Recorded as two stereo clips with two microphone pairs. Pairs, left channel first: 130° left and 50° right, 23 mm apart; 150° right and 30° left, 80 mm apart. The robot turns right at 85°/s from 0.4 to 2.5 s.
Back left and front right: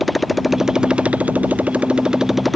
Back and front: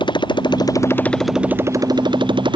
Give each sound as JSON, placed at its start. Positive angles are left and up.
{"t": 0.0, "sound": "a motorcycle", "azimuth_deg": -135}